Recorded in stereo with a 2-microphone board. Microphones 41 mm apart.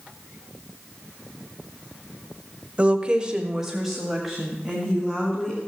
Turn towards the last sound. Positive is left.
turn(degrees=5)  # may be behind; listen again after turning